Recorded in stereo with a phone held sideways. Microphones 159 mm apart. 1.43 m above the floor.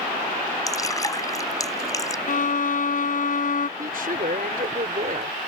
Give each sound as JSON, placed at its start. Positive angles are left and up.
{"t": 0.7, "sound": "dripping", "side_deg": 20}
{"t": 2.3, "sound": "a violin", "side_deg": 55}
{"t": 3.8, "sound": "a woman speaking", "side_deg": -65}